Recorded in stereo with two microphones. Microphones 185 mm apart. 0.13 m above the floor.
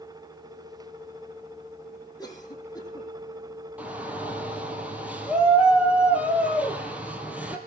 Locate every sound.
2.2 s a cough: 20° left (ahead or behind), 6.5 m
3.8 s a shout: 10° right (ahead or behind), 3 m